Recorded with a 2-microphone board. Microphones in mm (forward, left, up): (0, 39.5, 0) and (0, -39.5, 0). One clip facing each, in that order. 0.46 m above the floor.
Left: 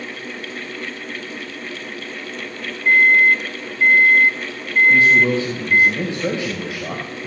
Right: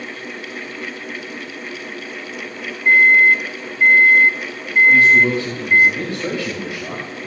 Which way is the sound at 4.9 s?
20° left (ahead or behind).